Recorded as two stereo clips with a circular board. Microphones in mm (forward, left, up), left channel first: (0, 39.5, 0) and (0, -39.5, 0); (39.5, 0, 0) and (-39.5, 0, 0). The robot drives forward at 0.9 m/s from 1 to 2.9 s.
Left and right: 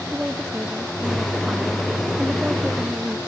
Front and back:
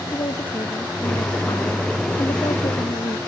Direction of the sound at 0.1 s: 15° right.